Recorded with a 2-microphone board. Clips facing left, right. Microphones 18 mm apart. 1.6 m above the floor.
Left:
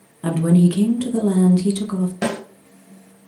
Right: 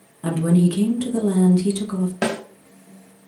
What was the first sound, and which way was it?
A woman speaking, 10° left (ahead or behind).